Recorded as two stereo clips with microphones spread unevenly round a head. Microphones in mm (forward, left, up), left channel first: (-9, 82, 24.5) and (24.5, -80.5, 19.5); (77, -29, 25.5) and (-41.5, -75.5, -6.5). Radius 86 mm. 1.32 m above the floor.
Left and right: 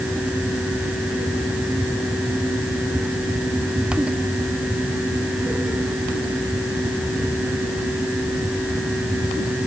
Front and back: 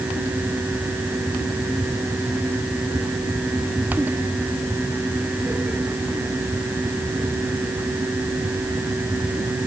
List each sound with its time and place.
Only background noise.